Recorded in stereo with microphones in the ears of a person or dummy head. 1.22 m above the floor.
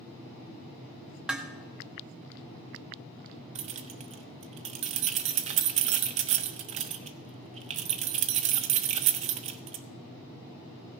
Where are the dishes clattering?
Centre (ahead or behind), 0.9 m.